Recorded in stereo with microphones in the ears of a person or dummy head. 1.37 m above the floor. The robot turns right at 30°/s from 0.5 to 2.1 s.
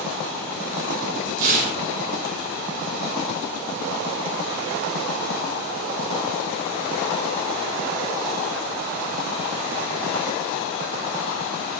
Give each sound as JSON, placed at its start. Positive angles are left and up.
{"t": 1.4, "sound": "tearing paper", "side_deg": -45, "distance_m": 5.0}